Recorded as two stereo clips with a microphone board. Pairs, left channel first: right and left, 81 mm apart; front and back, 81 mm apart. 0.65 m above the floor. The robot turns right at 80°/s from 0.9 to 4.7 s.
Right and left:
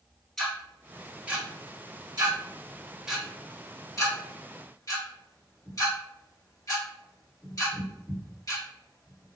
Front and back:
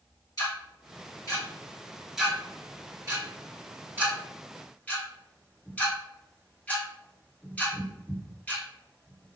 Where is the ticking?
10° right, 1.6 m; by 9.4 s 65° right, 1.6 m.